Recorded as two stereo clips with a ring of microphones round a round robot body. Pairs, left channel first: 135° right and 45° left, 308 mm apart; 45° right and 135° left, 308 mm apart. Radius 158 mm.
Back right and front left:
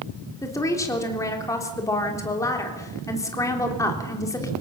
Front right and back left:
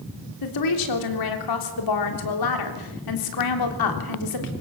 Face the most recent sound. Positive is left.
turn(degrees=-55)